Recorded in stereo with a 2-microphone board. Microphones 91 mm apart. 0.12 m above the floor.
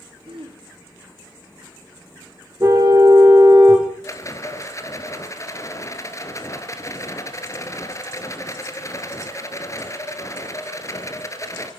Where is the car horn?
35° right (ahead or behind), 4.5 m.